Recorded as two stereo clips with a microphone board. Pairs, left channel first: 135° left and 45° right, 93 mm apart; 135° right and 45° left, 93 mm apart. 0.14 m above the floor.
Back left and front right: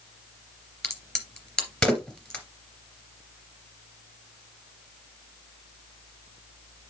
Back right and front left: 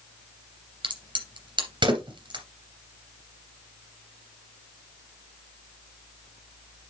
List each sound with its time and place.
0.8 s a crack: 55° left, 3 m